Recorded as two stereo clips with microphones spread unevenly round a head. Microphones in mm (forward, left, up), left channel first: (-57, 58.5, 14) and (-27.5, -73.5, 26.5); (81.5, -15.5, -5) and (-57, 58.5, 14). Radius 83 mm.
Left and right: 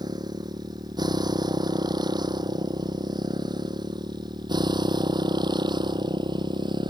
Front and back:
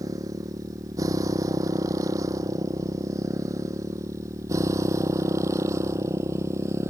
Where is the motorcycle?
135° right.